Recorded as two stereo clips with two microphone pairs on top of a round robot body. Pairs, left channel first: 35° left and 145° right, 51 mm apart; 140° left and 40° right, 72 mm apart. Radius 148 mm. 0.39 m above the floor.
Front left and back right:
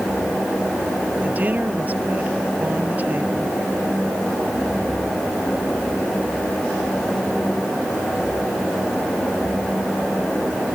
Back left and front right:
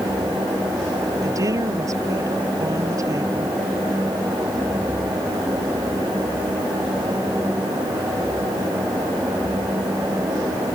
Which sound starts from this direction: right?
A woman speaking, at 1.2 s.